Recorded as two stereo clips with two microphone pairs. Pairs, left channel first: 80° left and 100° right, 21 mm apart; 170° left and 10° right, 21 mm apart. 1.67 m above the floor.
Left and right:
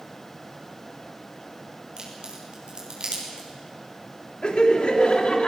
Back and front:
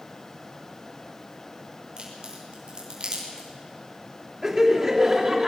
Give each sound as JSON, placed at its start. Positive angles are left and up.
{"t": 2.0, "sound": "a crack", "azimuth_deg": -60, "distance_m": 6.5}
{"t": 4.4, "sound": "laughter", "azimuth_deg": 55, "distance_m": 3.5}